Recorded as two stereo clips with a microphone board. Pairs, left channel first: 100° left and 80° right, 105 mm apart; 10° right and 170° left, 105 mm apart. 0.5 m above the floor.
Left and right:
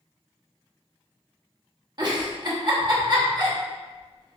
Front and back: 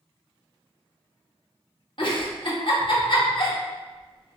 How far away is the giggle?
About 0.8 m.